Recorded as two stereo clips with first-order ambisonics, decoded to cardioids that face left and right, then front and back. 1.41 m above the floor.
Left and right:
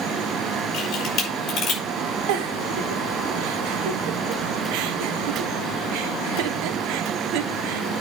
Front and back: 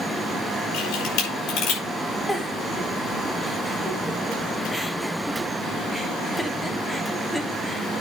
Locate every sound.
0.7 s a camera shutter: 35° left, 5 m
2.3 s a giggle: 90° right, 1.0 m